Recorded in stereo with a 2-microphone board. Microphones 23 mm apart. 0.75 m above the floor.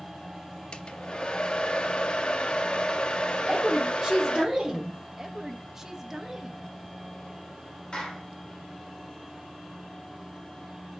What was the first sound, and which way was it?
A hair dryer, 45° left (ahead or behind).